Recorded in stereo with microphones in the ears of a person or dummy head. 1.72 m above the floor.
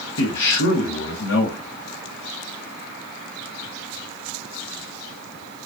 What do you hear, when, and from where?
0.2 s a man speaking: 70° left (ahead or behind), 1.1 m